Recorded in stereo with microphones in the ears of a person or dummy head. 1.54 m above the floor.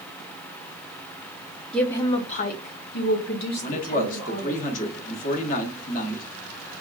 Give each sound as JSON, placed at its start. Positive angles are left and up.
{"t": 1.7, "sound": "a woman speaking", "side_deg": 5, "distance_m": 0.5}
{"t": 3.6, "sound": "a man speaking", "side_deg": 50, "distance_m": 1.0}